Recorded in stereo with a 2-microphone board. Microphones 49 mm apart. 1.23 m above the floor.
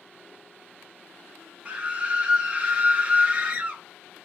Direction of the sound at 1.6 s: 25° right (ahead or behind).